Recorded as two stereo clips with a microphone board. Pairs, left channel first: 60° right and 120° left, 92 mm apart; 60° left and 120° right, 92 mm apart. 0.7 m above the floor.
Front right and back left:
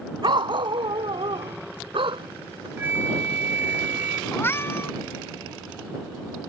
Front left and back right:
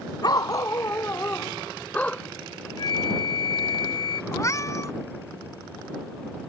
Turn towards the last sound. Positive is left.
turn(degrees=5)